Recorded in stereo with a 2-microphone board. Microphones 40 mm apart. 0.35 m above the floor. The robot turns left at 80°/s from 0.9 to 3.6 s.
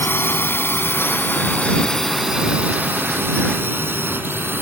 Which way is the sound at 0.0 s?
65° left (ahead or behind).